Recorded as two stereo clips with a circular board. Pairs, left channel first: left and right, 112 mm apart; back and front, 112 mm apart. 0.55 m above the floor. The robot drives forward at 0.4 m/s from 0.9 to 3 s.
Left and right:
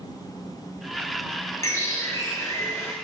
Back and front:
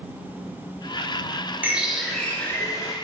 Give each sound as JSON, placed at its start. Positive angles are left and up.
{"t": 1.6, "sound": "a bird", "azimuth_deg": 60, "distance_m": 0.6}